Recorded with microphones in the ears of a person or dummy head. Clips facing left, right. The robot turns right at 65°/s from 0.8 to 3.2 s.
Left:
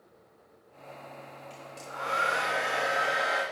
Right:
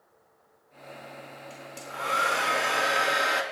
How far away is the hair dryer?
About 3 m.